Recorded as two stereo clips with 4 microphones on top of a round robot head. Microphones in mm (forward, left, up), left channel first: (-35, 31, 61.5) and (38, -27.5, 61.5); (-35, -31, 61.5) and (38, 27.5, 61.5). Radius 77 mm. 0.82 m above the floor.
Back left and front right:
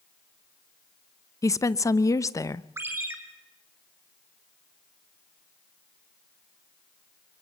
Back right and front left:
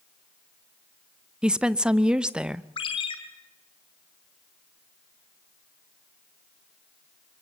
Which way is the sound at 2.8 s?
105° right.